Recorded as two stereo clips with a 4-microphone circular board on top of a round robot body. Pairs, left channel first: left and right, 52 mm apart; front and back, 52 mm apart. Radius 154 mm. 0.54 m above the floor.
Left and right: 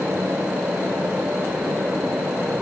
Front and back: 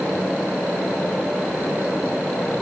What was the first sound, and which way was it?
Only background noise.